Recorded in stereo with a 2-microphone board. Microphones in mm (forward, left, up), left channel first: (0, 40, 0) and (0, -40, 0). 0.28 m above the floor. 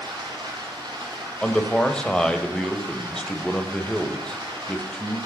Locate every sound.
0.0 s running water: 65° right (ahead or behind), 3.5 m
1.4 s a man speaking: 10° left (ahead or behind), 0.9 m